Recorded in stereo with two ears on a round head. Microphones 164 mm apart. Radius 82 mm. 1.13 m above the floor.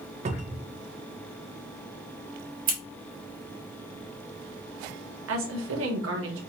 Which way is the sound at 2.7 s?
50° right (ahead or behind).